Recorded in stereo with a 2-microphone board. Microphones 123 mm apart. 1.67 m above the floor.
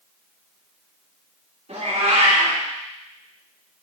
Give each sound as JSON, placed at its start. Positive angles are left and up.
{"t": 1.7, "sound": "a cat meowing", "side_deg": -65, "distance_m": 2.5}